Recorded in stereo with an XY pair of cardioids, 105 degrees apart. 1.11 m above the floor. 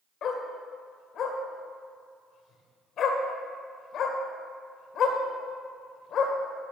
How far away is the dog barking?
About 1.8 m.